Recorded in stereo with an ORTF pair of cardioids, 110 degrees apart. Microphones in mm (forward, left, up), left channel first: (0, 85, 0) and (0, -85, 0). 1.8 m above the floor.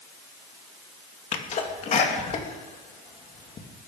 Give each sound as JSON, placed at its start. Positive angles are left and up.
{"t": 1.3, "sound": "a sneeze", "azimuth_deg": 45, "distance_m": 3.0}